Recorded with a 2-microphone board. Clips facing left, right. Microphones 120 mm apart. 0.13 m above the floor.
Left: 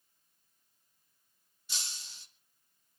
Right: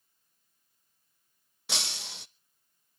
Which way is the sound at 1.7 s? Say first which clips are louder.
Right 11 dB; 75° right (ahead or behind).